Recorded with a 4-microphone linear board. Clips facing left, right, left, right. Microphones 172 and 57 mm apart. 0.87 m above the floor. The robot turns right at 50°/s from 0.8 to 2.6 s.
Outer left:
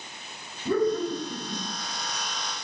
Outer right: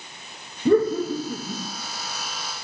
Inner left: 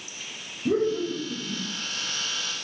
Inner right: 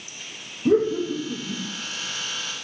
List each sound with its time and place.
0.7 s laughter: 45° right (ahead or behind), 0.6 m; by 1.6 s 55° right (ahead or behind), 0.6 m